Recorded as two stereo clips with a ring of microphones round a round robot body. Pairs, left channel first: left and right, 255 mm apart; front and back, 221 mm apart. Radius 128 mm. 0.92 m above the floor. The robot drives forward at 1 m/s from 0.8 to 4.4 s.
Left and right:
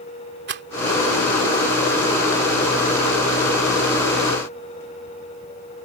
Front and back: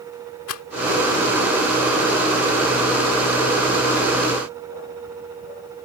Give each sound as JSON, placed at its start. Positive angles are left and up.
{"t": 0.5, "sound": "a rattle", "azimuth_deg": -40}